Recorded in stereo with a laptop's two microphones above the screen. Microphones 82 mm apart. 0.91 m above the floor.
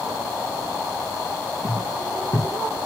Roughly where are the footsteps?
Left.